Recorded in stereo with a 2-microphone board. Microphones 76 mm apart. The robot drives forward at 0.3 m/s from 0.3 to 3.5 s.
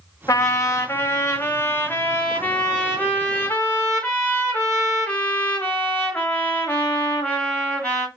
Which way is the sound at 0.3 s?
50° left (ahead or behind).